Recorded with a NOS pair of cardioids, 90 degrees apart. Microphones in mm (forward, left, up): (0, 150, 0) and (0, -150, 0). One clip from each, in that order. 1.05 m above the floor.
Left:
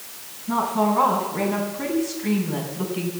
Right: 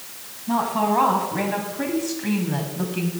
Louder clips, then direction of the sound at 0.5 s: Even; 55° right.